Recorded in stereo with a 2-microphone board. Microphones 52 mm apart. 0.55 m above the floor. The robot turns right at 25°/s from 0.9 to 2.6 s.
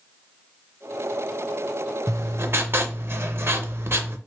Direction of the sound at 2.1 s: 65° right (ahead or behind).